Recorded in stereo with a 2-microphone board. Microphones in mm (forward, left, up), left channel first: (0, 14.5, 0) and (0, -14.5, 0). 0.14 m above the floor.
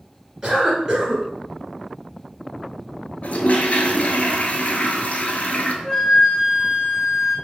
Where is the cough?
15° right (ahead or behind), 1.1 m.